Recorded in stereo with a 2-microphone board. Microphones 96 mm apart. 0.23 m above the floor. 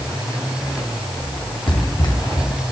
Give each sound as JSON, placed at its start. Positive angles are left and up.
{"t": 1.7, "sound": "running footsteps", "side_deg": 50, "distance_m": 2.5}